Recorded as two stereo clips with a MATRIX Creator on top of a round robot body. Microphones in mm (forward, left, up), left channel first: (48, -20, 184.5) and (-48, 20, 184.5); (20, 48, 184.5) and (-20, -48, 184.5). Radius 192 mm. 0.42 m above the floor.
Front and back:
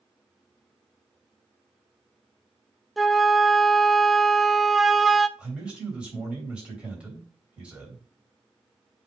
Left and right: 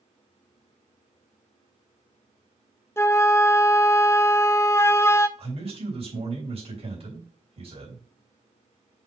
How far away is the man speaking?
About 3.5 m.